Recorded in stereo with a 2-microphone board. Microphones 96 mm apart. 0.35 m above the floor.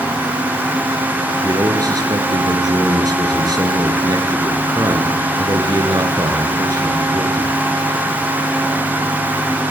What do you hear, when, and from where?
1.4 s a man speaking: 40° right (ahead or behind), 4.5 m